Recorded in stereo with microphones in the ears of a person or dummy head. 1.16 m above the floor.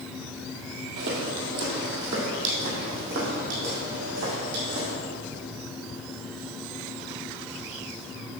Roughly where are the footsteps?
Right.